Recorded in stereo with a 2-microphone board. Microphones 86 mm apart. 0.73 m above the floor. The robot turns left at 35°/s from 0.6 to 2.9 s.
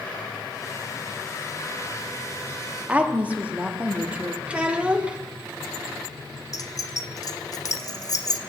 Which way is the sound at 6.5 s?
45° left (ahead or behind).